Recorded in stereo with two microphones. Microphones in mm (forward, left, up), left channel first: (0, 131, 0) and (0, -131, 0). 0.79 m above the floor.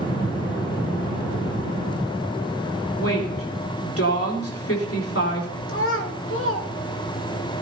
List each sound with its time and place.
3.0 s a woman speaking: 60° left (ahead or behind), 3 m
5.7 s a child speaking: 50° left (ahead or behind), 2 m